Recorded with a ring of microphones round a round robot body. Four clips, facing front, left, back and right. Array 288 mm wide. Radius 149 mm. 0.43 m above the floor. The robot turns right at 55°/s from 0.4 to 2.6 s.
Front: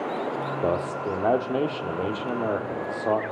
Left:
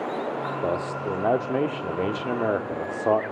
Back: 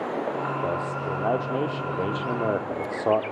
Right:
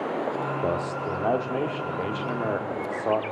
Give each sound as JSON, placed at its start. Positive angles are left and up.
{"t": 0.6, "sound": "a man speaking", "azimuth_deg": 10, "distance_m": 1.2}